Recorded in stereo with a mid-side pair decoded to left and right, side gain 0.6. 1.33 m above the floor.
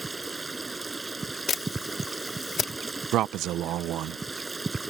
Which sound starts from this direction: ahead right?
A man speaking, at 3.1 s.